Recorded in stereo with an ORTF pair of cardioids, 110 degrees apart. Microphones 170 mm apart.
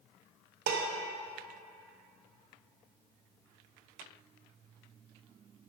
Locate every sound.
0.7 s dishes clattering: 70° right, 0.8 m